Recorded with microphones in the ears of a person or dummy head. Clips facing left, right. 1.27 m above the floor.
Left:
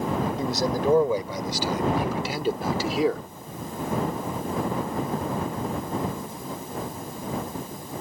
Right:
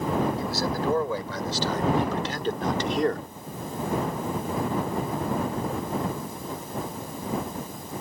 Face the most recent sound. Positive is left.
turn(degrees=-5)  # may be behind; listen again after turning